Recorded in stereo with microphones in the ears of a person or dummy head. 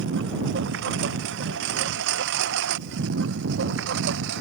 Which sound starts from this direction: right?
A lawn mower, at 0.0 s.